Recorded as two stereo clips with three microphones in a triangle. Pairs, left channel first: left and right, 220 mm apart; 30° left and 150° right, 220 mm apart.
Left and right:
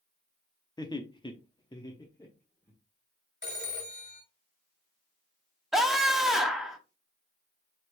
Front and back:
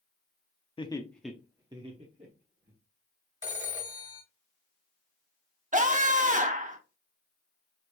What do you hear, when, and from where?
0.8 s laughter: 45° left, 0.6 m; by 2.7 s 165° left, 1.2 m
3.4 s a phone ringing: 135° left, 1.4 m
5.7 s a scream: straight behind, 0.8 m